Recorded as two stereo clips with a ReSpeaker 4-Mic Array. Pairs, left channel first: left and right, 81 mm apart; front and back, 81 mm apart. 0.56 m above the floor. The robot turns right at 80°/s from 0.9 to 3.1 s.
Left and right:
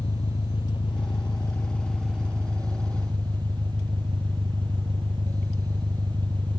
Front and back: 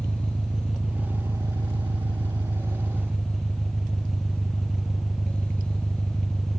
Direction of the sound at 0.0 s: 95° left.